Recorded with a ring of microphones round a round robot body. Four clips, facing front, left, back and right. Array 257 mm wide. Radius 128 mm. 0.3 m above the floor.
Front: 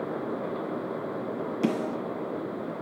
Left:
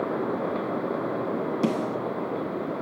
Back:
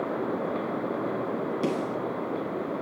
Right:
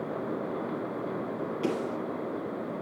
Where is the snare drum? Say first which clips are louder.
Left 3 dB, front 3 dB; 85° left, 2.5 m.